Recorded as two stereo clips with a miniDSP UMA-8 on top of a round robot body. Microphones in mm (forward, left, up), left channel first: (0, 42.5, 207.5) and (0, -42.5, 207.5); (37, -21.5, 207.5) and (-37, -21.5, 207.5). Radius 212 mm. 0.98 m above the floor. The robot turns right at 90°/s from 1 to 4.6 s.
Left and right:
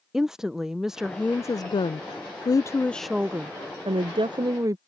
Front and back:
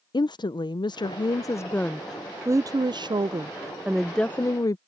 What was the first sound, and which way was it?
A woman speaking, 5° right.